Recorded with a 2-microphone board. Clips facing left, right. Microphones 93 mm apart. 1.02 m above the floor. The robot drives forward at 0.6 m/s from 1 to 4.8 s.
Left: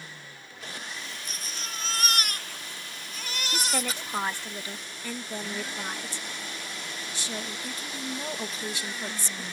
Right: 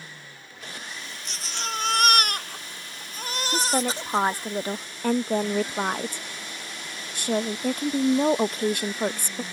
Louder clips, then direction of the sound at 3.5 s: Right 6 dB; 25° right (ahead or behind).